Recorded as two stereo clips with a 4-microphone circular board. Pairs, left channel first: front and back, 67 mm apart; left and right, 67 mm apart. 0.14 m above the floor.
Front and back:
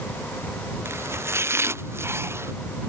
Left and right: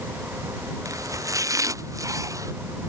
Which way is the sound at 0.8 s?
130° right.